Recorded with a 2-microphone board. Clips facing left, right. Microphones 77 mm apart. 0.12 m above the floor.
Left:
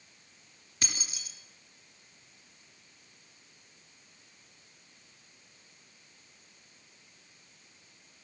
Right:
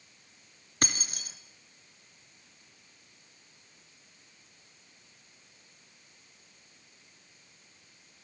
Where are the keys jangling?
50° right (ahead or behind), 1.6 m.